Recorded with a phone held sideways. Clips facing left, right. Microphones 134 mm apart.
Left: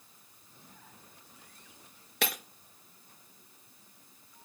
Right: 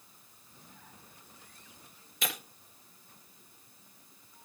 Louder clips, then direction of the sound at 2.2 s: Left 4 dB; 70° left (ahead or behind).